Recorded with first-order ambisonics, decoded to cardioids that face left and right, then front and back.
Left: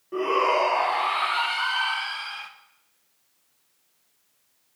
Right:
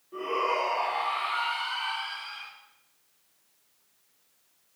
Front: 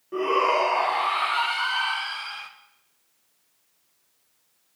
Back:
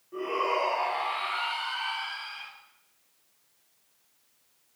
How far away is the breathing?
No breathing in this recording.